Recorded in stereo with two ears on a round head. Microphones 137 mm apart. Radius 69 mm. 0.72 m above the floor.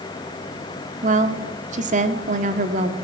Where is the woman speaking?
50° right (ahead or behind), 2 m.